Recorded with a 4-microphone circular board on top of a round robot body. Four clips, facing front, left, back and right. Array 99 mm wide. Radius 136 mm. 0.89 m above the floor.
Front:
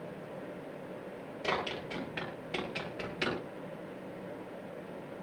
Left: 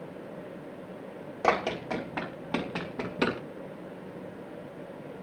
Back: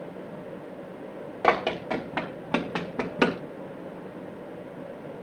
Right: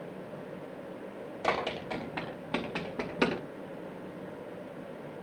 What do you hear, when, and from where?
1.4 s running footsteps: 160° left, 3.5 m; by 3.4 s 170° right, 3 m